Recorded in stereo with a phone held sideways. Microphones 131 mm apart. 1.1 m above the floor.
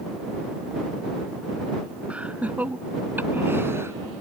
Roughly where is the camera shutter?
I don't hear a camera shutter.